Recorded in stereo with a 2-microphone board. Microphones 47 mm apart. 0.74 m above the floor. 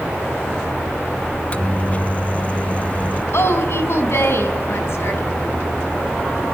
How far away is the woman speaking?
About 5 m.